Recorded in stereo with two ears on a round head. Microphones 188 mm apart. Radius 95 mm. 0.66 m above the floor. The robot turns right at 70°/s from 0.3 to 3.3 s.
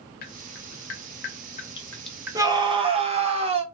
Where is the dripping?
45° left (ahead or behind), 0.6 m; by 3.4 s 65° right (ahead or behind), 0.6 m.